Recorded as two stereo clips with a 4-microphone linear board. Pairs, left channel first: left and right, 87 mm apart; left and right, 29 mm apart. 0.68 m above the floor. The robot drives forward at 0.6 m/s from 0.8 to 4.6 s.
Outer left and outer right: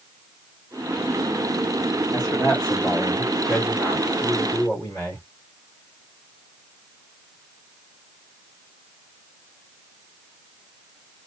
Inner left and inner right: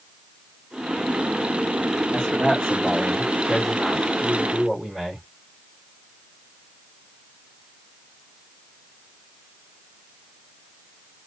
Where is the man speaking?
20° left (ahead or behind), 1.6 m; by 5.2 s 10° left (ahead or behind), 3 m.